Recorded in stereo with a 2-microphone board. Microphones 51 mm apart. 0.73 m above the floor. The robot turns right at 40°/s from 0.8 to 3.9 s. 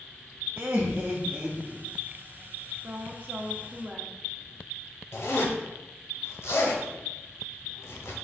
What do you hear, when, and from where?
0.6 s laughter: 45° right, 0.6 m; by 1.8 s 5° right, 0.6 m
2.8 s a woman speaking: 75° right, 0.7 m; by 4.1 s 30° right, 0.7 m
5.1 s a zipper: 75° left (ahead or behind), 1.0 m